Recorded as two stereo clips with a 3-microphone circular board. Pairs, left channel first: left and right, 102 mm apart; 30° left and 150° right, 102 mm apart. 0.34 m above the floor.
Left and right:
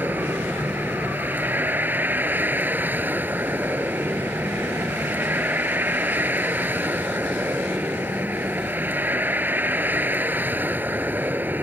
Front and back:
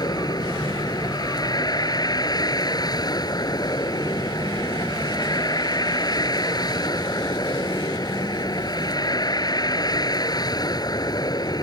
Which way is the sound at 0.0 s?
20° right.